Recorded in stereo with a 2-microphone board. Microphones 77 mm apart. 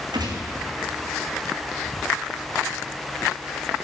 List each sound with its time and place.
0.1 s a gunshot: 80° right, 2 m